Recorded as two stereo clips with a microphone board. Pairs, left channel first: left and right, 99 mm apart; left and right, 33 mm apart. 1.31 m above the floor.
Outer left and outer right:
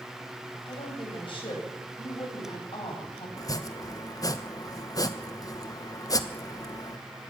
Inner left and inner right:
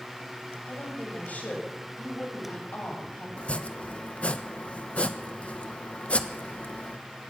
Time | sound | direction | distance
0.7 | a woman speaking | 55° left (ahead or behind) | 8.5 m
3.4 | chopping | 35° left (ahead or behind) | 1.3 m